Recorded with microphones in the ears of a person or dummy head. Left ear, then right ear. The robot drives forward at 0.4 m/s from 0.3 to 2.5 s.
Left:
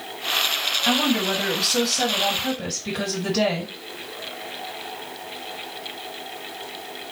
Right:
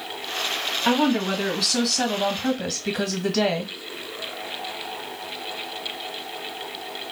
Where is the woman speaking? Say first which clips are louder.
Right 2 dB; 15° right (ahead or behind), 2.5 m; by 3.7 s 20° right (ahead or behind), 1.7 m.